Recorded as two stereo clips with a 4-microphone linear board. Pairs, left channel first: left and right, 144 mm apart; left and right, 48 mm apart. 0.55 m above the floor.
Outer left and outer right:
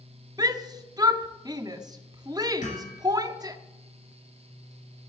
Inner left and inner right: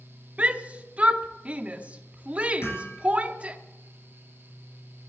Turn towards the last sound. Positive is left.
turn(degrees=55)  # may be behind; listen again after turning